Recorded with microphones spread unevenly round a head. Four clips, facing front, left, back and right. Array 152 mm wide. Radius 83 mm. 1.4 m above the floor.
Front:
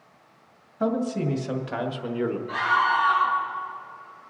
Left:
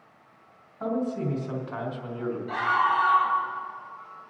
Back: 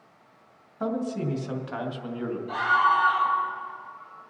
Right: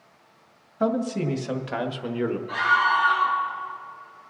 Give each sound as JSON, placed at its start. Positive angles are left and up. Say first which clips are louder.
{"t": 0.8, "sound": "a man speaking", "louder": "right 4 dB, front 3 dB", "azimuth_deg": -85, "distance_m": 2.0}
{"t": 2.5, "sound": "a scream", "louder": "right 1 dB, back 2 dB", "azimuth_deg": 130, "distance_m": 5.5}